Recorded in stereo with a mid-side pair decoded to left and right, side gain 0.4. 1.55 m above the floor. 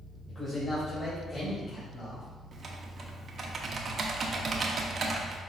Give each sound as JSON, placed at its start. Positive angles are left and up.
{"t": 0.3, "sound": "a man speaking", "azimuth_deg": 35, "distance_m": 2.0}
{"t": 2.5, "sound": "typing on a keyboard", "azimuth_deg": -45, "distance_m": 0.8}